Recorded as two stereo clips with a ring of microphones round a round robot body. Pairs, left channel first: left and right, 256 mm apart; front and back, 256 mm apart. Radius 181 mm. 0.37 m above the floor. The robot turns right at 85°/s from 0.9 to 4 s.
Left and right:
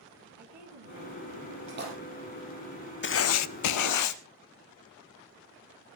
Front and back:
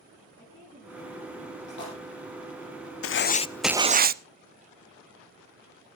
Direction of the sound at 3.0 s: 40° left.